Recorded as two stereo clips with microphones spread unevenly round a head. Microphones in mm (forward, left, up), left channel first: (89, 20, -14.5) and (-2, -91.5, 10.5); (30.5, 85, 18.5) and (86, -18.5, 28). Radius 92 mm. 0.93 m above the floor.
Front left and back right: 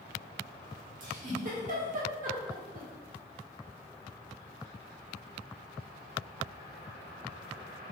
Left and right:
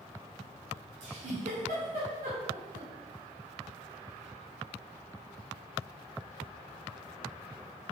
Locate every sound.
1.0 s a giggle: 100° right, 2.5 m